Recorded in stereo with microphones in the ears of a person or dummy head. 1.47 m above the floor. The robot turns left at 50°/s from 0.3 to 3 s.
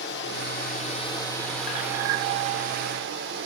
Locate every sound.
0.0 s running water: 65° left, 1.0 m; by 3.5 s 70° right, 1.0 m